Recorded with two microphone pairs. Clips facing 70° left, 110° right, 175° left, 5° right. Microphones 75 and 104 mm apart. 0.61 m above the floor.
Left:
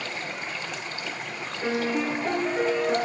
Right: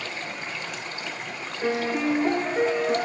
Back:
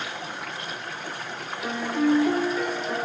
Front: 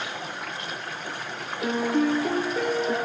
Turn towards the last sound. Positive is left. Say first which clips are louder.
# right 1 dB, front 1 dB
turn(degrees=-40)